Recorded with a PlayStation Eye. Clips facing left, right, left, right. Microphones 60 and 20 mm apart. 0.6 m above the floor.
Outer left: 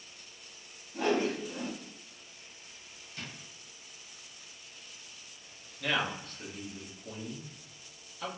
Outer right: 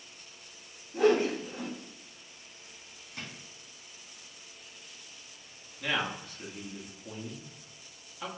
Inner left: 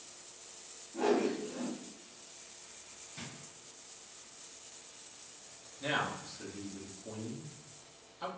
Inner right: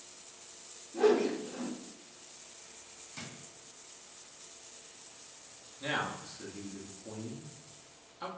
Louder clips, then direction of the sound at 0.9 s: Outer right 5 dB, inner right 4 dB; 55° right (ahead or behind).